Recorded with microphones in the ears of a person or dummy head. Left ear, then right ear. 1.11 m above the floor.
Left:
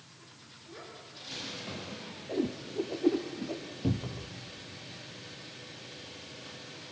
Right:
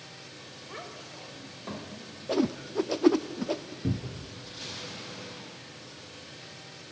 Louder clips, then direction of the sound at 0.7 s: Right 4 dB; 60° right (ahead or behind).